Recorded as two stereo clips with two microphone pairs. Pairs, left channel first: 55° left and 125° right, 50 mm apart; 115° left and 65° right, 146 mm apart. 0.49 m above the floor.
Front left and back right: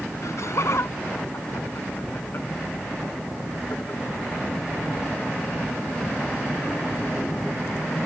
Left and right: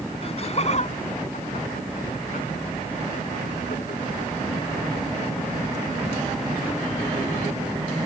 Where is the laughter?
70° left; by 4.0 s 110° left.